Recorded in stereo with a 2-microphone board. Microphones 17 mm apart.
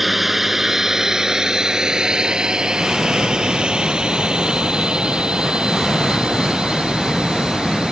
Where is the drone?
10° right (ahead or behind); by 7.9 s 80° right.